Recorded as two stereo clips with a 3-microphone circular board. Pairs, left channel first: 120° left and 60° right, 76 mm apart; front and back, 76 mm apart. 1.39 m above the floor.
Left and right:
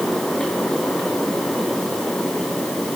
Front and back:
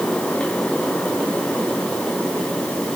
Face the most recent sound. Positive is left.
No sound to turn to.